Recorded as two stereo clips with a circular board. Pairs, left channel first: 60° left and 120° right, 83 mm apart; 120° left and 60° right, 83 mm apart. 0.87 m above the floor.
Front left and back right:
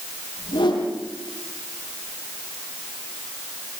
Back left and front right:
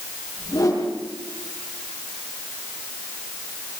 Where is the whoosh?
70° left, 9.5 m.